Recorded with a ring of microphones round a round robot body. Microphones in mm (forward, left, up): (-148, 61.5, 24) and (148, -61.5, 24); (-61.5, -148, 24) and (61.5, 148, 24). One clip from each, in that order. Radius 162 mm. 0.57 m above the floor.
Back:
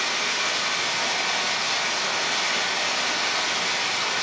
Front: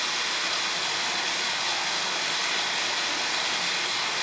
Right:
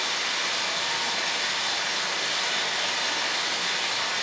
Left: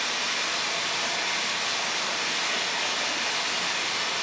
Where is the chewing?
No chewing in this recording.